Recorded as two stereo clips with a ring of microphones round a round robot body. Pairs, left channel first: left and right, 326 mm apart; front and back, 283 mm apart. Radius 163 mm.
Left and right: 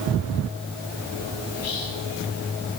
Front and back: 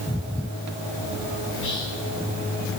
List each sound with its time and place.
1.5 s whispering: 45° left, 3 m